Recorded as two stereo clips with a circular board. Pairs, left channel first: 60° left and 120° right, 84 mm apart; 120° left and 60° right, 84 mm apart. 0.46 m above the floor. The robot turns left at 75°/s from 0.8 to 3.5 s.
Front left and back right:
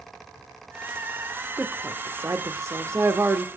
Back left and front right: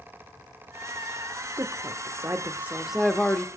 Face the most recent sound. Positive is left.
turn(degrees=175)